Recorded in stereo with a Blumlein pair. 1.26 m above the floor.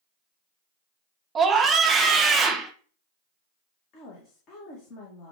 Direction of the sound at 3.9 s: 35° left.